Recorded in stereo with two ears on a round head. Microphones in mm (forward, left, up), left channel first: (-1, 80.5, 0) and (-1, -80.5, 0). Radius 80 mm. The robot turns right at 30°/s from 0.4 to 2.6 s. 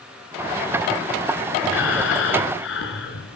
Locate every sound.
1.6 s breathing: 65° left (ahead or behind), 3.5 m